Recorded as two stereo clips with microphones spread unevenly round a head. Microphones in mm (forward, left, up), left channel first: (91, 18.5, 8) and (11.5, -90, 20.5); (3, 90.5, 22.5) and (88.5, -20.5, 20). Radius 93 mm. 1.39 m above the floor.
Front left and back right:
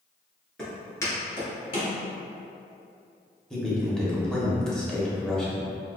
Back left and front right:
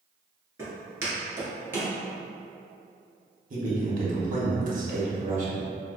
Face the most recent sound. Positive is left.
turn(degrees=-30)